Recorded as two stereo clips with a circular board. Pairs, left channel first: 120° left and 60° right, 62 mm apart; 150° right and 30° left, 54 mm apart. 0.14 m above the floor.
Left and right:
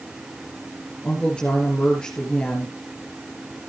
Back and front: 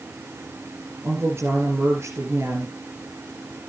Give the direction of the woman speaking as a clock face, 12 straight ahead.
10 o'clock.